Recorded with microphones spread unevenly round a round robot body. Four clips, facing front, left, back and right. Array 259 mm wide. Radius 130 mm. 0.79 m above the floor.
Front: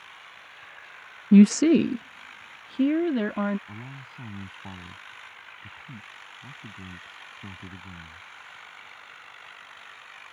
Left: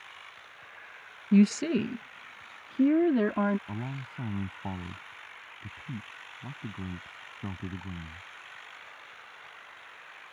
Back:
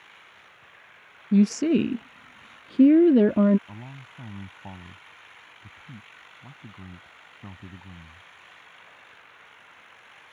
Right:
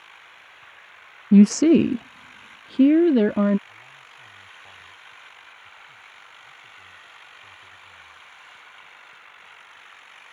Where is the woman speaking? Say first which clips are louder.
Right 10 dB, front 4 dB; 45° right; by 3.6 s 150° right.